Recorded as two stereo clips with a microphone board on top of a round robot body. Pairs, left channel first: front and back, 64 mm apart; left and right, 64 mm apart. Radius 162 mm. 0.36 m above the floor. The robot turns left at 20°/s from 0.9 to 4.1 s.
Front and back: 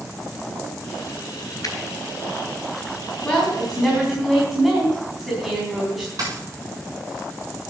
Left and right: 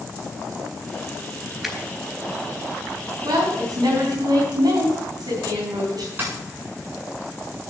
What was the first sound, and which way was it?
A finger snap, 5° right.